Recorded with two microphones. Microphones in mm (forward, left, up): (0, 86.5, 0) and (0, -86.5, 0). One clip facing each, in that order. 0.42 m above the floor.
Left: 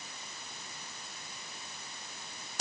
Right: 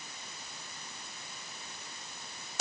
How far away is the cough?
I don't hear a cough.